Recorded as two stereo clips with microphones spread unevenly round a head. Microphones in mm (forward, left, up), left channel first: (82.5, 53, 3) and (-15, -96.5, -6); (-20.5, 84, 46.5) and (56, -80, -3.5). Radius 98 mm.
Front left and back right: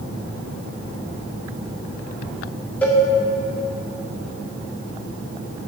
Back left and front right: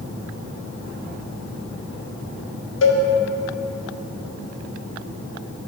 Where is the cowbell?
140° left, 0.7 m.